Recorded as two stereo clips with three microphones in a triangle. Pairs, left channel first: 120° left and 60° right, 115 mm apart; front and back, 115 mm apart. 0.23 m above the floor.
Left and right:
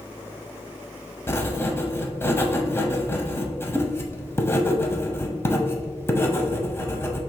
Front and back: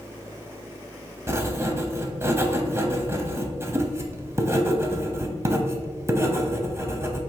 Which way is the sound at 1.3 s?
155° left.